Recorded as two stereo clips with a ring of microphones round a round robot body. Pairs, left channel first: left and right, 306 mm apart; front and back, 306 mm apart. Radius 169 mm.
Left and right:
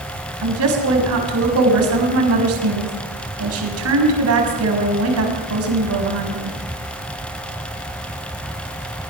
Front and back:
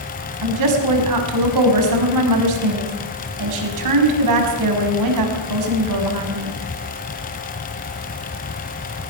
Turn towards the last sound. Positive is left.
turn(degrees=-140)